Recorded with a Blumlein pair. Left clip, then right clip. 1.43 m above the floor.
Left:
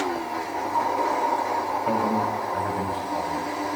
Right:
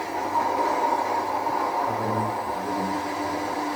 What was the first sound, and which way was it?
A man speaking, 25° left.